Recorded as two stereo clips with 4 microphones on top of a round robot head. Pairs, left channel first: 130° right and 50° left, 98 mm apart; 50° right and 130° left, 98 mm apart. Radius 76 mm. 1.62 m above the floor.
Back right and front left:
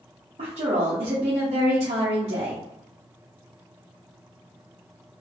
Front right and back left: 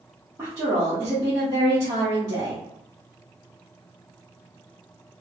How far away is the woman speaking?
About 1.0 m.